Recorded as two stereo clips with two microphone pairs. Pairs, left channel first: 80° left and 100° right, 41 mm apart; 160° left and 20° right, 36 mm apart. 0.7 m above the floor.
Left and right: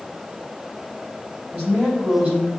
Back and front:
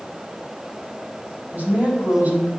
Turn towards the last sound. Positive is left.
turn(degrees=-50)